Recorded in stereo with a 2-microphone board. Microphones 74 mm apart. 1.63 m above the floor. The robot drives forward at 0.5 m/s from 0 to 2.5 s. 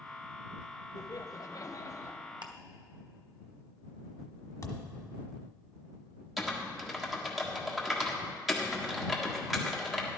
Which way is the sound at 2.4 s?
80° right.